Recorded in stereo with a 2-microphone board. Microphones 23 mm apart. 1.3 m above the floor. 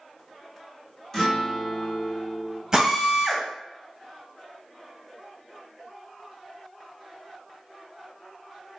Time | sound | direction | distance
1.1 | a guitar | 10° left (ahead or behind) | 1.0 m
2.7 | a drill | 25° right (ahead or behind) | 1.1 m